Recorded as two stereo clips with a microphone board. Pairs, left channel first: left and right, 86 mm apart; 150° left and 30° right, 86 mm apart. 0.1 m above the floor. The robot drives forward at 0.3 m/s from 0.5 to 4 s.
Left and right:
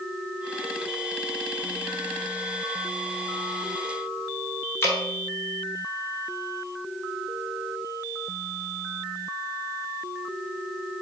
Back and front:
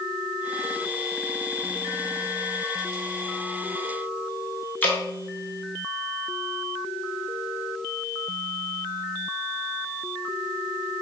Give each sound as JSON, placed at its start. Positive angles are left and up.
{"t": 4.8, "sound": "dripping", "azimuth_deg": 105, "distance_m": 0.9}